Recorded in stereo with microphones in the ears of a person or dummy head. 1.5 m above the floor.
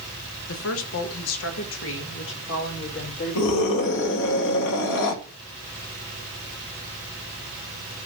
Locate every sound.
0.5 s a woman speaking: 75° left (ahead or behind), 1.4 m; by 4.1 s 60° left (ahead or behind), 3.5 m
3.4 s a scream: 70° left (ahead or behind), 2.5 m